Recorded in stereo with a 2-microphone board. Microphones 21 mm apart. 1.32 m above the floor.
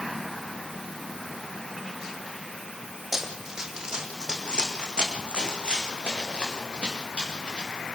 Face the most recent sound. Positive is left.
turn(degrees=-55)  # may be behind; listen again after turning